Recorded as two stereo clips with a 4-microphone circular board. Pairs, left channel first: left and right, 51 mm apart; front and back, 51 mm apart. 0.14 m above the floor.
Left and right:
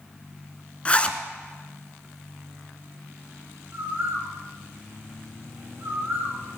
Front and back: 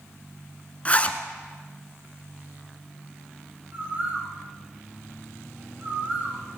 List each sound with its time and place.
0.8 s a zipper: 40° left, 0.9 m
3.7 s a bird: 125° right, 1.9 m